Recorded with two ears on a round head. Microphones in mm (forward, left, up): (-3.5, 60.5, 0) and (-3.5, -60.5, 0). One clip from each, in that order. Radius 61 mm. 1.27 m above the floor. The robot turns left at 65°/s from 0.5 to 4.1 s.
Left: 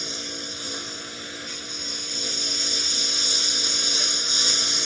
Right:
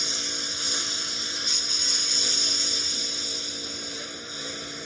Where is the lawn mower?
30° right; by 4.9 s 95° left.